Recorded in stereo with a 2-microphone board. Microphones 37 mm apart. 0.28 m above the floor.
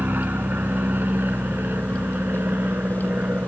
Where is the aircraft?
60° right (ahead or behind); by 3.5 s 65° right (ahead or behind).